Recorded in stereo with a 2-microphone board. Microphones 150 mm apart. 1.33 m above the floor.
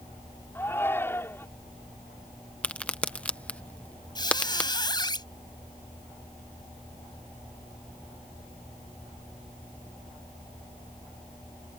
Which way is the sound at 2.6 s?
10° left (ahead or behind).